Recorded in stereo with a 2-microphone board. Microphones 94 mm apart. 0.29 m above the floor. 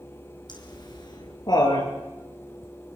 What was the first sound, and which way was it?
Laughter, 50° left (ahead or behind).